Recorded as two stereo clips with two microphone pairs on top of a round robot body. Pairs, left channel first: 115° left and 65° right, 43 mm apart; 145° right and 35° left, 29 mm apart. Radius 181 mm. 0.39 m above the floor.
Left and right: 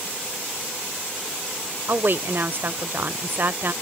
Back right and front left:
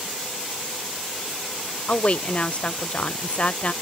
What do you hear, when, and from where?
1.9 s a woman speaking: 100° right